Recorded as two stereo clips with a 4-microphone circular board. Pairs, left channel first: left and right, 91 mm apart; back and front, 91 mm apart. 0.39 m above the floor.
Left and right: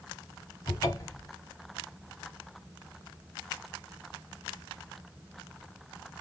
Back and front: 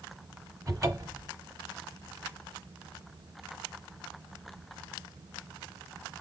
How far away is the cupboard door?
About 0.9 m.